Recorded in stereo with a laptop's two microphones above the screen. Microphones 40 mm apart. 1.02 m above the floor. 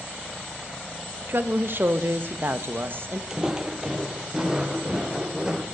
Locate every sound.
1.3 s a woman speaking: 55° right (ahead or behind), 1.1 m
3.3 s footsteps: 15° right (ahead or behind), 1.7 m